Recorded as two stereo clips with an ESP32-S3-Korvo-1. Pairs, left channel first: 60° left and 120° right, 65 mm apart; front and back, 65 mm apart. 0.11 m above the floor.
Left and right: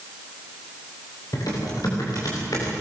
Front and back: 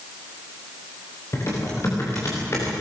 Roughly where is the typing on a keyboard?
Ahead left.